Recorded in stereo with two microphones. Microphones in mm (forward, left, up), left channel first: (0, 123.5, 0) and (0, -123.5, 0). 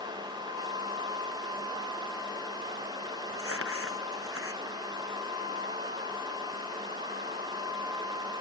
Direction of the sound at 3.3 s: 60° right (ahead or behind).